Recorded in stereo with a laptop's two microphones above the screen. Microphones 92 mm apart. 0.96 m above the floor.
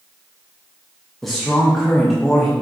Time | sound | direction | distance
1.2 | a man speaking | centre (ahead or behind) | 0.5 m